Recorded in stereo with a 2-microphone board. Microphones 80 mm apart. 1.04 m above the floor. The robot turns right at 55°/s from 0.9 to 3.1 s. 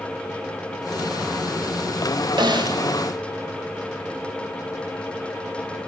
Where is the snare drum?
70° right (ahead or behind), 0.8 m; by 2.8 s 65° right (ahead or behind), 0.8 m.